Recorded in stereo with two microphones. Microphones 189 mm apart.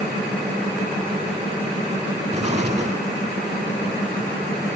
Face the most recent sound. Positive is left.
turn(degrees=-35)  # may be behind; listen again after turning